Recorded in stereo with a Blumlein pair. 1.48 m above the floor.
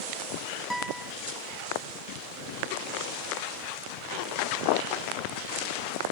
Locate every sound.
0.7 s a guitar: straight ahead, 0.5 m